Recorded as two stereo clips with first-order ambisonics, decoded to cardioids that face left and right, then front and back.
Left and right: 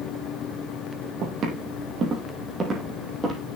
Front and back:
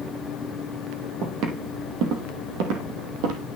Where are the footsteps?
140° right, 2.5 m; by 3.4 s 170° right, 3 m.